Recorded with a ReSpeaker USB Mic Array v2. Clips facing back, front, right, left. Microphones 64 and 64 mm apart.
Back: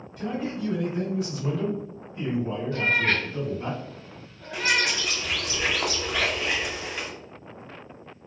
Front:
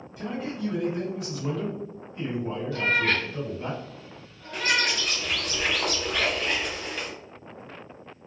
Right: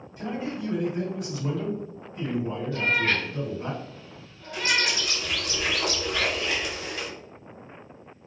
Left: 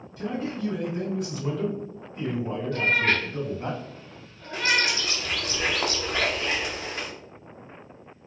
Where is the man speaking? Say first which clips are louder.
Back 2 dB, left 2 dB; 80° right, 1.7 m; by 3.7 s 100° left, 2.5 m.